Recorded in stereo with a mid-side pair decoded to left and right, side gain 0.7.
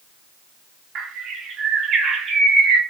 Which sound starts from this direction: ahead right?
A bird, at 0.9 s.